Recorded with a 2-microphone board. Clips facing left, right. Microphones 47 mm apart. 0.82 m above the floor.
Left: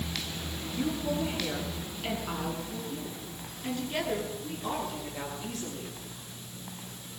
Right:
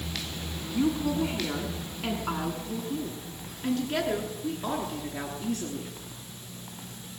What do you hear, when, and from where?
0.7 s a woman speaking: 85° right, 8 m